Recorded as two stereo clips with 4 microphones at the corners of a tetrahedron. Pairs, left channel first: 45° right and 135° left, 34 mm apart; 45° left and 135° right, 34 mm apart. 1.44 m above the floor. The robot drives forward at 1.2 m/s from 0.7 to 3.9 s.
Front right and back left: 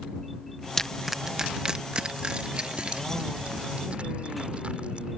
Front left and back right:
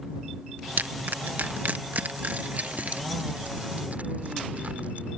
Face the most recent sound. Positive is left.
turn(degrees=-175)